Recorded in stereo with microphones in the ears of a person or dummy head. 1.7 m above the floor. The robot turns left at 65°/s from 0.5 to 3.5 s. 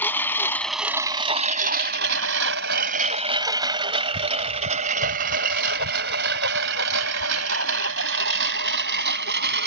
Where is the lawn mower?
5° left (ahead or behind); by 9.7 s 60° right (ahead or behind).